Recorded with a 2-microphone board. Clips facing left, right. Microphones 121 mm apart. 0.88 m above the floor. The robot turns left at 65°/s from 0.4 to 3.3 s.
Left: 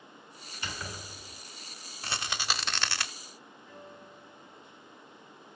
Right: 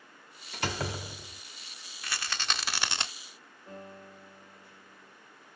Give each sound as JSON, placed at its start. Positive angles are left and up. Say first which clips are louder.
{"t": 0.5, "sound": "a door slam", "louder": "right 8 dB", "azimuth_deg": -75, "distance_m": 1.3}
{"t": 2.0, "sound": "a rattle", "louder": "left 1 dB", "azimuth_deg": 35, "distance_m": 0.7}
{"t": 3.7, "sound": "a piano", "louder": "right 4 dB", "side_deg": -75, "distance_m": 7.0}